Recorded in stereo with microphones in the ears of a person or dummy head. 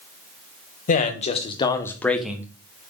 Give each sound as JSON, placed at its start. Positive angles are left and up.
{"t": 0.9, "sound": "a man speaking", "side_deg": 40, "distance_m": 1.2}